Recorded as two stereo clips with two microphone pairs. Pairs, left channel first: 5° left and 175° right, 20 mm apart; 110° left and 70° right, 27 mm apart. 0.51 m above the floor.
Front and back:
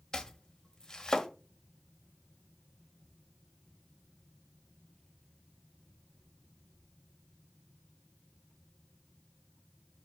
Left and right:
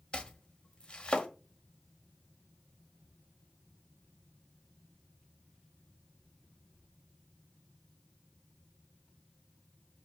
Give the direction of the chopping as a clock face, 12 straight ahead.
10 o'clock.